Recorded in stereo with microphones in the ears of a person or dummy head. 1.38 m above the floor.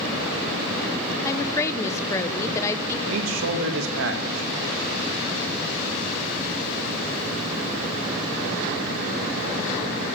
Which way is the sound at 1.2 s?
15° left (ahead or behind).